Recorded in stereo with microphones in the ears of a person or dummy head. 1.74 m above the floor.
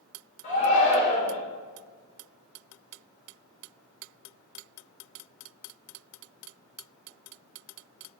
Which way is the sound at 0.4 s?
40° left (ahead or behind).